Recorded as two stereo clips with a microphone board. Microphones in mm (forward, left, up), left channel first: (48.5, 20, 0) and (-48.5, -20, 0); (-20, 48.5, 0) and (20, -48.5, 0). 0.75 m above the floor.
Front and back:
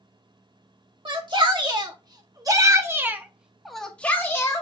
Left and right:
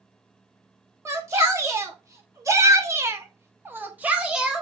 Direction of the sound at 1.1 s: 125° right.